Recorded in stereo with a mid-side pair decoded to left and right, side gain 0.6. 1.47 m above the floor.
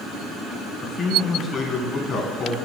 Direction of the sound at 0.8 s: 40° left.